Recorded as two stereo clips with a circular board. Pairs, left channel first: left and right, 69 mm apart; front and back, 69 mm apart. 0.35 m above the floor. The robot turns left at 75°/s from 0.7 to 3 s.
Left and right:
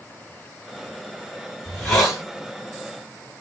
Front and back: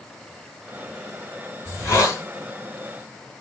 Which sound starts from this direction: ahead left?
A hiss, at 1.6 s.